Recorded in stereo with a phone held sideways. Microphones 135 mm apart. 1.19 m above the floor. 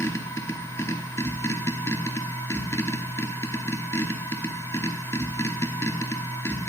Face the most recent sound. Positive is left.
turn(degrees=20)  # may be behind; listen again after turning